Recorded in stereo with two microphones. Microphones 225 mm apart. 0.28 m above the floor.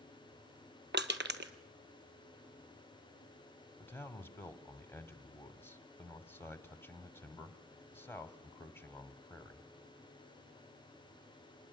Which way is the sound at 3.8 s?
10° left (ahead or behind).